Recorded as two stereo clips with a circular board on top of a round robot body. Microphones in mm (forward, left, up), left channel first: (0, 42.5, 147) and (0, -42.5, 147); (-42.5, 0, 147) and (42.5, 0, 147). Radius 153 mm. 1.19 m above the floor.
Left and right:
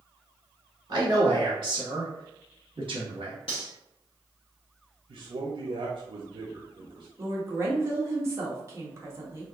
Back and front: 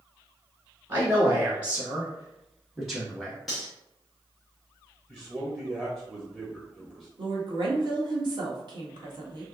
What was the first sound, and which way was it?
A man speaking, 50° right.